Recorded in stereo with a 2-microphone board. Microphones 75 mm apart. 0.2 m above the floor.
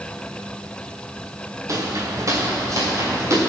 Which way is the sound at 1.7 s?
45° right (ahead or behind).